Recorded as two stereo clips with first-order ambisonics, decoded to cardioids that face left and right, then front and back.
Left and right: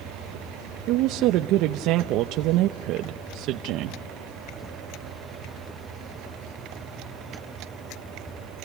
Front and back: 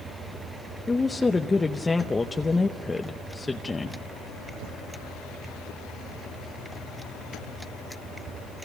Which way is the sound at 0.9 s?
75° right.